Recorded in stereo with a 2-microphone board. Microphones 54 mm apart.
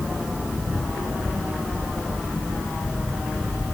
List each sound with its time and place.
Only background noise.